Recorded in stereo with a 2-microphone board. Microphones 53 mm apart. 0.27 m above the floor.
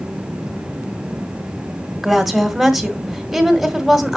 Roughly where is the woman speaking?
Centre.